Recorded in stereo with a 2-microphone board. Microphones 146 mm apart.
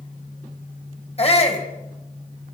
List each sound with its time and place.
1.2 s a shout: 45° left (ahead or behind), 4.5 m